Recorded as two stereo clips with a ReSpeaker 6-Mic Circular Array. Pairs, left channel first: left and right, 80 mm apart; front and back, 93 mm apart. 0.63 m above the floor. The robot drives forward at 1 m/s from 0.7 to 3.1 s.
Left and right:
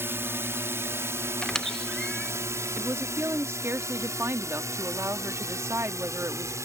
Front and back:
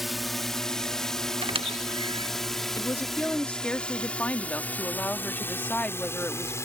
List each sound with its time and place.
0.0 s a drone: 95° right; by 6.7 s 50° right
1.4 s a squeak: 170° left; by 2.3 s 175° left
2.8 s a woman speaking: 40° right; by 6.5 s 65° right